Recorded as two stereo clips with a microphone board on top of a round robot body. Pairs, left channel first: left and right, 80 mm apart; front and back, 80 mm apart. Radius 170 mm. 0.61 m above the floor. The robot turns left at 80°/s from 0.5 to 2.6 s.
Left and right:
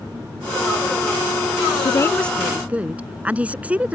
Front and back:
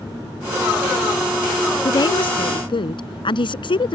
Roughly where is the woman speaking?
Ahead left.